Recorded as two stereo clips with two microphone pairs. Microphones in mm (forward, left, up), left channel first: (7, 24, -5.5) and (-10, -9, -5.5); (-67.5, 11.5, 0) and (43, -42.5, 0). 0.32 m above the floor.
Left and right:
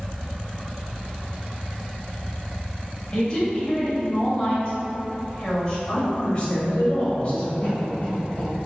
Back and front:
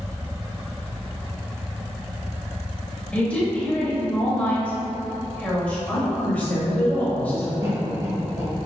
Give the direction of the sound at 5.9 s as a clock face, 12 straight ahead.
9 o'clock.